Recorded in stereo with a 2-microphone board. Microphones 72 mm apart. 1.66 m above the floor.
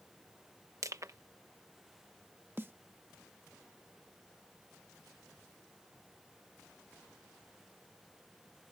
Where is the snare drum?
30° right (ahead or behind).